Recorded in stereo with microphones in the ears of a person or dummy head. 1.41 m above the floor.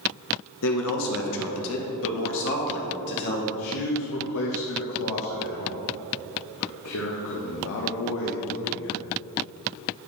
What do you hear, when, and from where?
0.6 s a man speaking: 65° left (ahead or behind), 1.1 m; by 3.4 s 55° left (ahead or behind), 2.5 m
3.5 s a man speaking: 75° left (ahead or behind), 1.4 m